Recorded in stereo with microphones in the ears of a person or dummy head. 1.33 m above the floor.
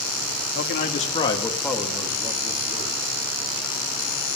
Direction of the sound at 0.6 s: 50° left (ahead or behind).